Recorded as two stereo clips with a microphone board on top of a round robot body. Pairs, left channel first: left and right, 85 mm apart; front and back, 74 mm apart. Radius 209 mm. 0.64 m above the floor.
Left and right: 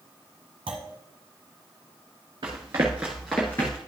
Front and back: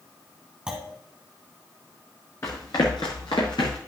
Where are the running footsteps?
55° right, 0.8 m; by 3.8 s 30° left, 0.8 m.